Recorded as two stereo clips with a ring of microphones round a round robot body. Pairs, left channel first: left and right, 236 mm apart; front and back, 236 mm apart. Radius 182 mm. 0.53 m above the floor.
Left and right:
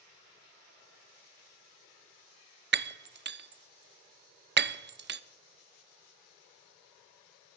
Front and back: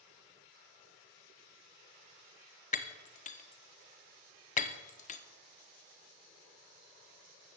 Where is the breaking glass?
50° right, 0.5 m.